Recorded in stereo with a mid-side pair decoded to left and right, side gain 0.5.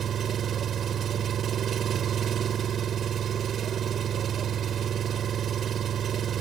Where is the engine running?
50° right.